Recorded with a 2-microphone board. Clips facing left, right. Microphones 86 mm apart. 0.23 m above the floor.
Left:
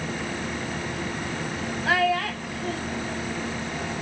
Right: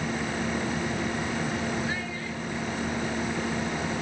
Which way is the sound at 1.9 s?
75° left (ahead or behind).